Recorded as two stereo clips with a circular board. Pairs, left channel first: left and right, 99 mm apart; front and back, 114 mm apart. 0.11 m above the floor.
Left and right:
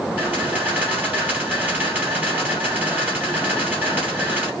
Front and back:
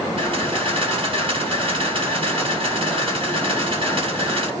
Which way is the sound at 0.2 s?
160° right.